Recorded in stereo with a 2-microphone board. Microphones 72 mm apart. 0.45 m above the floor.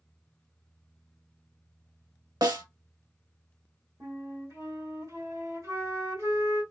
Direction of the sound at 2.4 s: 65° right (ahead or behind).